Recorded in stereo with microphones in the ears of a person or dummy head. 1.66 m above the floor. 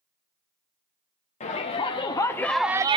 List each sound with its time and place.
1.4 s a shout: 30° left (ahead or behind), 1.4 m; by 3.0 s 25° right (ahead or behind), 0.6 m